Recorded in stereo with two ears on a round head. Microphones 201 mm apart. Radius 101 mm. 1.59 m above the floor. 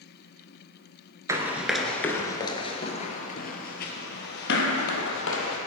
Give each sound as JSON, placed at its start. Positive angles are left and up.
{"t": 1.3, "sound": "running footsteps", "side_deg": -15, "distance_m": 1.6}